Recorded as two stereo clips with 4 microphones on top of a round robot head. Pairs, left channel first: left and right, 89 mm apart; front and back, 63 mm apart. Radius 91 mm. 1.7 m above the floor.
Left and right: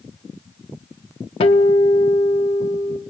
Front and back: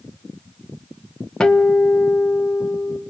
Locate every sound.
1.4 s a guitar: 75° left, 0.7 m